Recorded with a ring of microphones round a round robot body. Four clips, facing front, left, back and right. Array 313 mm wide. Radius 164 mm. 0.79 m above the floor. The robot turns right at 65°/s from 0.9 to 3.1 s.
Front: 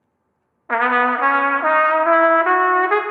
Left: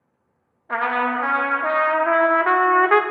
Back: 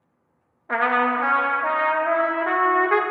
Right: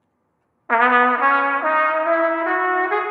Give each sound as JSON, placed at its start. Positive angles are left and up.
{"t": 0.7, "sound": "a trumpet", "azimuth_deg": -70, "distance_m": 0.6}